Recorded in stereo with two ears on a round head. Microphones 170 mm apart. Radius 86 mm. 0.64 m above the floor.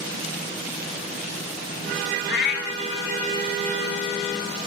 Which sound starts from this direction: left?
A cat meowing, at 2.3 s.